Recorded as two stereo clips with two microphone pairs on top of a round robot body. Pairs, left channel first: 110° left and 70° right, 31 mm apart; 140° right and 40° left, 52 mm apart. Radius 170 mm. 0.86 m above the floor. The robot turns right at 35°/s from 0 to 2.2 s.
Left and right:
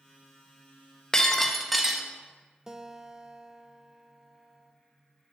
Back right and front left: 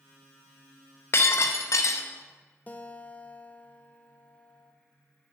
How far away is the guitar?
About 0.7 m.